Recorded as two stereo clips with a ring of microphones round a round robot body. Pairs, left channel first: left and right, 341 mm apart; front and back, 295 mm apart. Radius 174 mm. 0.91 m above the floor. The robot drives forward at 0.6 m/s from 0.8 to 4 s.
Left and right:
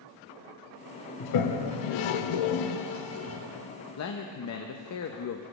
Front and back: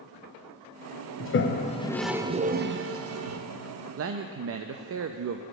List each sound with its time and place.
1.2 s a toilet flushing: 50° left, 0.8 m; by 3.4 s 145° left, 1.0 m
4.0 s a man speaking: 135° left, 0.6 m